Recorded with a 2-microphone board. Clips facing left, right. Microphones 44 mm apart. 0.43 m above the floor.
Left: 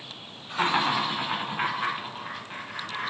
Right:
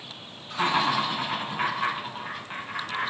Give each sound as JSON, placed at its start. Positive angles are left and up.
{"t": 0.5, "sound": "laughter", "side_deg": 35, "distance_m": 1.1}